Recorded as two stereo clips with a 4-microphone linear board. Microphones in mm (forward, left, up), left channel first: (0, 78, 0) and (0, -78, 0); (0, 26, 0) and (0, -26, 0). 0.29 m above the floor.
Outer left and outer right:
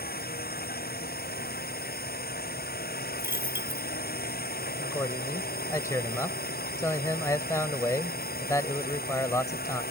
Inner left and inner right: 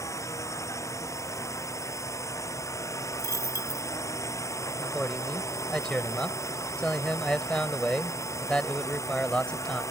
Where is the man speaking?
20° left (ahead or behind).